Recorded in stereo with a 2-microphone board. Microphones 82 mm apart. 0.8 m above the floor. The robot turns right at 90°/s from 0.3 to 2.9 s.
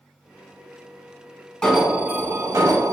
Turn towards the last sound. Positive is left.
turn(degrees=-80)